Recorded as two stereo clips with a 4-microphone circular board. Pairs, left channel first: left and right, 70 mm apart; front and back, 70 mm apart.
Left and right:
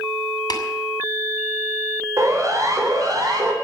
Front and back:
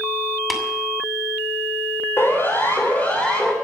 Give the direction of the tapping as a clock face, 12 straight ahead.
9 o'clock.